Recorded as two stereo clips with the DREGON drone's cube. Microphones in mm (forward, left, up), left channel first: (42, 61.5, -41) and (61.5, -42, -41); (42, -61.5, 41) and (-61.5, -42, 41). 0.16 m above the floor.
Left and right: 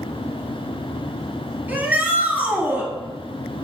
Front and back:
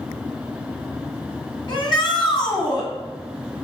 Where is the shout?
10° right, 2.0 m.